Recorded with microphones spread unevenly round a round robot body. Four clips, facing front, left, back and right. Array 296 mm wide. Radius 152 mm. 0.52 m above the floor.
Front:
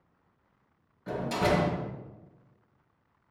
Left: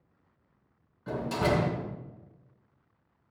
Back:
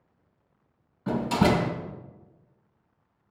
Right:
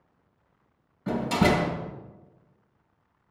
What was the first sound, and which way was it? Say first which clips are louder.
A door slam: right 5 dB, back 4 dB; 140° right.